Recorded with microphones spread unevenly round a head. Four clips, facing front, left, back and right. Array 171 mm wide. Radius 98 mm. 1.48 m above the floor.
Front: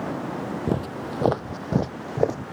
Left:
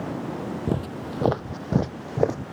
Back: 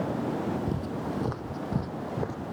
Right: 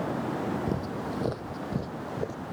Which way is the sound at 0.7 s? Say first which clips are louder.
Left 3 dB, front 4 dB; 60° left.